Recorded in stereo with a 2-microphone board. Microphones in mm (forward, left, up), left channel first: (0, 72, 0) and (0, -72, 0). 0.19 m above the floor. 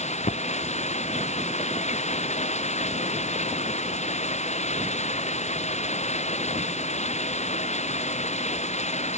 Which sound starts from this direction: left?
Running water, at 0.0 s.